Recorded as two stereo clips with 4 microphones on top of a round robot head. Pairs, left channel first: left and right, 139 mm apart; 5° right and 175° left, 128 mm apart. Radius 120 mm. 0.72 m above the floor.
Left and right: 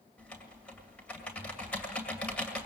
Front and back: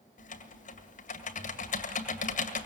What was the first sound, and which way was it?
Typing on a keyboard, 5° left.